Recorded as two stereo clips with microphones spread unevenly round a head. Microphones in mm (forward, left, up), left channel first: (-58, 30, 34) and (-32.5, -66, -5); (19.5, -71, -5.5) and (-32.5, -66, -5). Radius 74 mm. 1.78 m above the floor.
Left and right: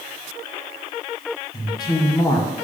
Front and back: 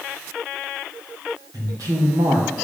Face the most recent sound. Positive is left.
turn(degrees=145)